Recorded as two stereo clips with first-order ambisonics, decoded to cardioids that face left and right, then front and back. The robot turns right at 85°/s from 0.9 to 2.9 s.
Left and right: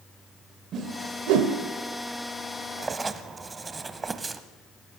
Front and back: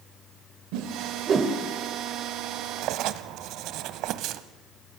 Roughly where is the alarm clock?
No alarm clock in this recording.